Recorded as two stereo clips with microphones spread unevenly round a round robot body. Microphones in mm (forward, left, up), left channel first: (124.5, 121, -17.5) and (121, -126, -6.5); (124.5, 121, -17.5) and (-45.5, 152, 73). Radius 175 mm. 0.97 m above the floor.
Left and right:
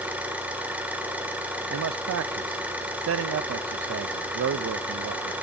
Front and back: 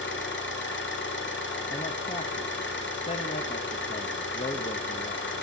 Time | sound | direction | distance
0.0 | an engine running | 5° right | 2.5 m
1.7 | a man speaking | 60° right | 0.5 m